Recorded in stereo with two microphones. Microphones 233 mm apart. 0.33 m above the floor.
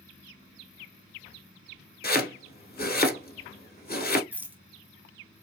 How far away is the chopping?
About 1.0 m.